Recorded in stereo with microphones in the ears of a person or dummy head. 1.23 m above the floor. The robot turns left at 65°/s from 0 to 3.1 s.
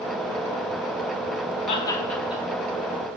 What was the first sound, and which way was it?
Laughter, 35° left (ahead or behind).